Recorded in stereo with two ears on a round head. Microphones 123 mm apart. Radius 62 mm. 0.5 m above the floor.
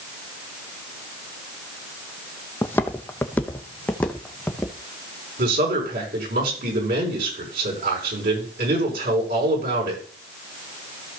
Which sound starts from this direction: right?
A man speaking, at 5.4 s.